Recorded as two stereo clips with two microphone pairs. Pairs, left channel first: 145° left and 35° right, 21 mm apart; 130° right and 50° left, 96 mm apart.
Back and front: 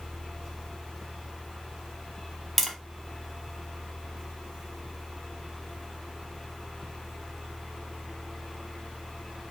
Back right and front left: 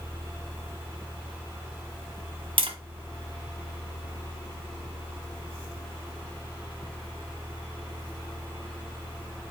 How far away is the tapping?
About 1.0 m.